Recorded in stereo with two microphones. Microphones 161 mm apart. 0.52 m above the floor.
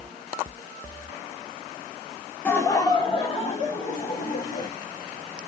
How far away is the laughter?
About 1.1 m.